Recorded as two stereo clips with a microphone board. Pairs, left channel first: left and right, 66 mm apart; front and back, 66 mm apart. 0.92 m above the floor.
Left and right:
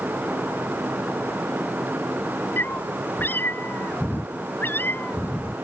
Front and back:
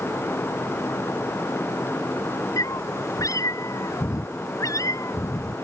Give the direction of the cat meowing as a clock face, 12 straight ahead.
11 o'clock.